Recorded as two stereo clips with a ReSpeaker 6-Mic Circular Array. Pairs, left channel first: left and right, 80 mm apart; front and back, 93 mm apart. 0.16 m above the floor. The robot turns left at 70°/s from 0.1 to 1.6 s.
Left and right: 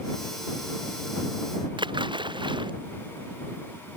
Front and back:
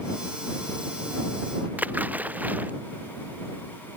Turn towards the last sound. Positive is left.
turn(degrees=-105)